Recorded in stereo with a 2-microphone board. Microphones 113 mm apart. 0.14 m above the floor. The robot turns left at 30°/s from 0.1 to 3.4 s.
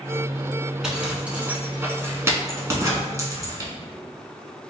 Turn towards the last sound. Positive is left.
turn(degrees=-30)  # may be behind; listen again after turning